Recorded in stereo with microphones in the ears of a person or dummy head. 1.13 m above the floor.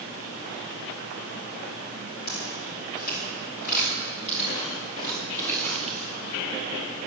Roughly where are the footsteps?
Left.